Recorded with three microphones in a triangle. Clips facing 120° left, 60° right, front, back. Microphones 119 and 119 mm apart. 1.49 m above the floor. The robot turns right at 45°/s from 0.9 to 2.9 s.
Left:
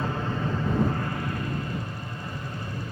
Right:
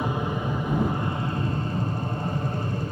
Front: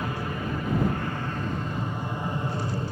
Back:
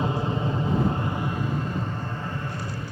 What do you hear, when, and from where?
0.0 s an aircraft: 125° right; by 2.9 s 35° right